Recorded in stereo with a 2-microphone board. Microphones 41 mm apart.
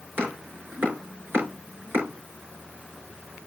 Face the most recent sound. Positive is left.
turn(degrees=-60)  # may be behind; listen again after turning